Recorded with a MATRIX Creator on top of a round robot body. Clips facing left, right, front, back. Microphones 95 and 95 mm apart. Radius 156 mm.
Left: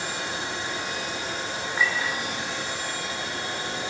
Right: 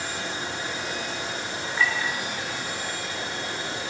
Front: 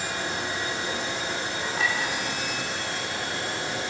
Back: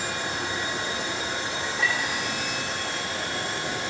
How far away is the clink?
About 5 m.